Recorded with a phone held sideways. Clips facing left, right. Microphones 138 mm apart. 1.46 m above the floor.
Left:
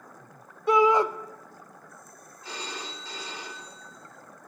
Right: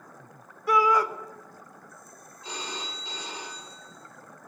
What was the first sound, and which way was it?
A shout, 25° left (ahead or behind).